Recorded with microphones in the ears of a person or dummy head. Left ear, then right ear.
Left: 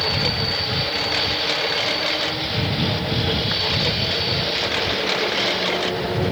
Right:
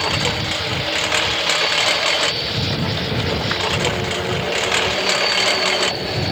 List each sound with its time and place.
0.0 s a lawn mower: 35° right (ahead or behind)